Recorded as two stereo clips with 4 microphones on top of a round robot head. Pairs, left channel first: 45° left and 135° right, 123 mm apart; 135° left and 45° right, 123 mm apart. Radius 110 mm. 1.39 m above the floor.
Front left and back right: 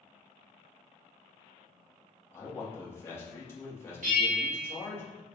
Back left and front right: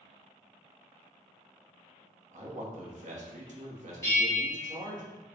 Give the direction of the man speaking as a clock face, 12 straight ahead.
1 o'clock.